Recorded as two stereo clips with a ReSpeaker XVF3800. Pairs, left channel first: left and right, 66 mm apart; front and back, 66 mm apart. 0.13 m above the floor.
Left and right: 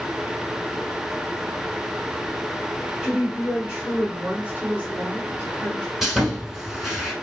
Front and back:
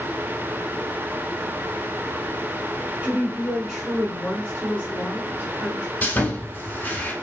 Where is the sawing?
10° right, 1.1 m.